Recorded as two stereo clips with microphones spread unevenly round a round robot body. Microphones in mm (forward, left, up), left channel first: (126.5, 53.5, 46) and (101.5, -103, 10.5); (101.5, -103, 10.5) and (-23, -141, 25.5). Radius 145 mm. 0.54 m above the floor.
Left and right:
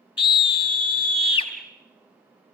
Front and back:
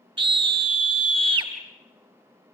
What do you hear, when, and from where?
0.2 s a scream: 145° left, 1.6 m